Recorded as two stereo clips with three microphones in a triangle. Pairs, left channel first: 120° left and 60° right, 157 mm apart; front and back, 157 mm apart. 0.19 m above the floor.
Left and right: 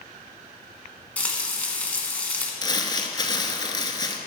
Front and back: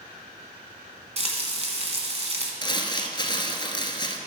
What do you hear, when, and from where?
1.2 s frying: 165° right, 1.6 m
2.6 s crumpling: 60° left, 1.0 m